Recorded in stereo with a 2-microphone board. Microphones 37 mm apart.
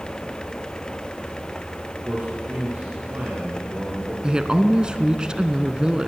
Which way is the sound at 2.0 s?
60° right (ahead or behind).